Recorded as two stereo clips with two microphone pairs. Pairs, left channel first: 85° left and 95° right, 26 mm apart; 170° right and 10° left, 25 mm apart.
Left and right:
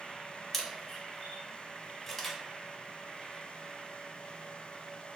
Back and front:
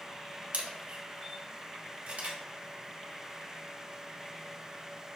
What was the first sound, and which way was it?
A camera shutter, 5° right.